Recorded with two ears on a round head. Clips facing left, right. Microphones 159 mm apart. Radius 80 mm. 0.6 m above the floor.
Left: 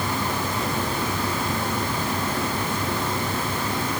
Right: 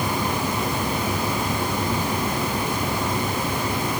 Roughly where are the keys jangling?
I don't hear keys jangling.